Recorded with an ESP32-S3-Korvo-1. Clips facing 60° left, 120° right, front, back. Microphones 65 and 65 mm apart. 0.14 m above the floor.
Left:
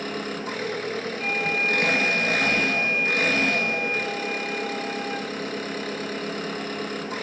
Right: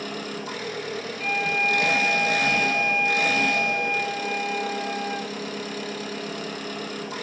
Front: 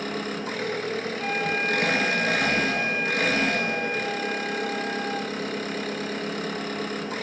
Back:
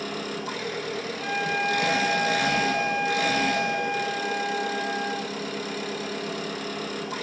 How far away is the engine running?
About 1.0 m.